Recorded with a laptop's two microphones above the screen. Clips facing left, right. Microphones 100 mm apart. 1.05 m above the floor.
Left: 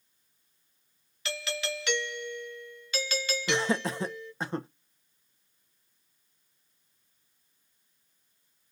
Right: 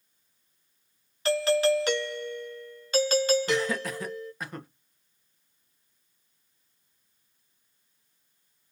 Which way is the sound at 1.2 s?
40° right (ahead or behind).